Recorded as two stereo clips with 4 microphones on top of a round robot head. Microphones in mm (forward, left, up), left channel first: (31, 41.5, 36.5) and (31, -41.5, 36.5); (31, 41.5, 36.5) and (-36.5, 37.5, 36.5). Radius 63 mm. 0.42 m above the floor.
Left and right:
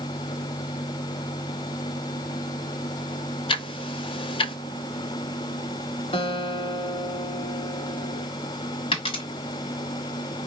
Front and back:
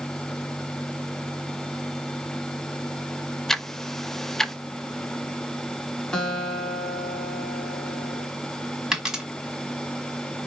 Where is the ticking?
90° left, 0.6 m.